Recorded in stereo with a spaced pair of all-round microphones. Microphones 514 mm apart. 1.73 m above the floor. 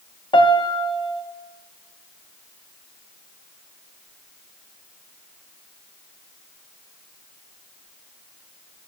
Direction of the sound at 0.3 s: 10° left (ahead or behind).